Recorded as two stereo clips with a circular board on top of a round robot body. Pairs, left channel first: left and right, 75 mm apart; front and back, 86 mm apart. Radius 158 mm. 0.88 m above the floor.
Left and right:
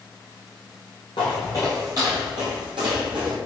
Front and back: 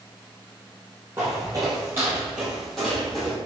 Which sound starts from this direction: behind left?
Footsteps, at 1.2 s.